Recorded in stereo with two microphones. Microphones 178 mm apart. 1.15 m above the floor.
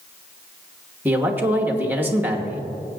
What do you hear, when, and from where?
1.1 s a man speaking: 10° right (ahead or behind), 1.2 m